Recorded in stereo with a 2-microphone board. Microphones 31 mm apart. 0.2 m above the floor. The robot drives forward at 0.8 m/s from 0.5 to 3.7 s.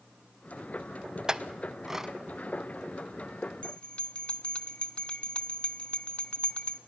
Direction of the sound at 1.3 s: 20° right (ahead or behind).